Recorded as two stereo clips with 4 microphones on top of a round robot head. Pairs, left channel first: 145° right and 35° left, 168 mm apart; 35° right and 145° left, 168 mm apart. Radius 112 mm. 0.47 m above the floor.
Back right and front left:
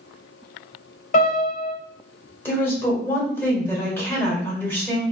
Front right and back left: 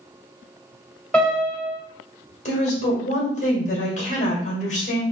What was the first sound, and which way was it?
A piano, 115° right.